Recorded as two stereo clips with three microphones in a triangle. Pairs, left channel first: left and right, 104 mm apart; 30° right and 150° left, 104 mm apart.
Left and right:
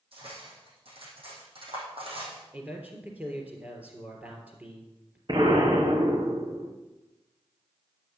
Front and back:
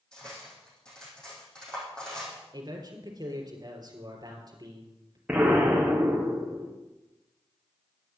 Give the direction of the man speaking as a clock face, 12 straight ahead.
5 o'clock.